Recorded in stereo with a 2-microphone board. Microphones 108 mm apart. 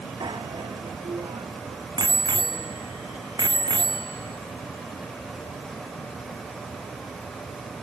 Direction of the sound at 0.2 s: 40° right (ahead or behind).